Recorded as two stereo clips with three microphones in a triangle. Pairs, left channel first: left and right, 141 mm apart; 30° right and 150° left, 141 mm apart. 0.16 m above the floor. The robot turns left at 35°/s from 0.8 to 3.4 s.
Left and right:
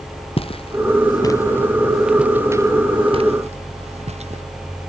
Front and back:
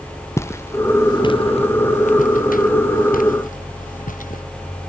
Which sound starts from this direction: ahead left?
Footsteps, at 0.4 s.